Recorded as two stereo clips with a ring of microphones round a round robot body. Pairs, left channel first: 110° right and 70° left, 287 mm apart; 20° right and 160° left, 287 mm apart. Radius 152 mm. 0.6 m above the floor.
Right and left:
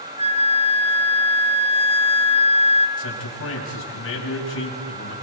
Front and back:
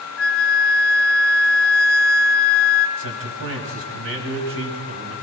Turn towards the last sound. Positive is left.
turn(degrees=-160)